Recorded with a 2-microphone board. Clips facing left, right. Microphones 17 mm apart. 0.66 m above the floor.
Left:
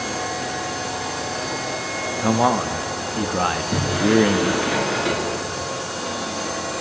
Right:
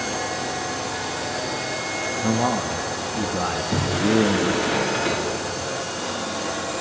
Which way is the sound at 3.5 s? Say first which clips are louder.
Left 1 dB; 10° left (ahead or behind).